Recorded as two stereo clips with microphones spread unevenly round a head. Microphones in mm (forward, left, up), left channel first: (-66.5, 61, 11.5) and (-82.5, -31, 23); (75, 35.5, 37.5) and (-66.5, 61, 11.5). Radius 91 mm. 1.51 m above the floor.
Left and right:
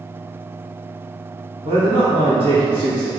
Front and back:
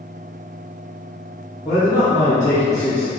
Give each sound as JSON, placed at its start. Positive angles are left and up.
{"t": 1.6, "sound": "a man speaking", "azimuth_deg": -85, "distance_m": 1.0}